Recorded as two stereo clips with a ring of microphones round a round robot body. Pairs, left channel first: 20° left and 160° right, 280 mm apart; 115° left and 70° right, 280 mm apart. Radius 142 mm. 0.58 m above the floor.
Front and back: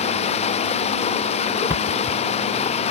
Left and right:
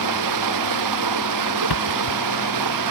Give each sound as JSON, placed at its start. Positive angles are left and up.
{"t": 0.0, "sound": "running water", "azimuth_deg": -45}
{"t": 1.7, "sound": "a thud", "azimuth_deg": 120}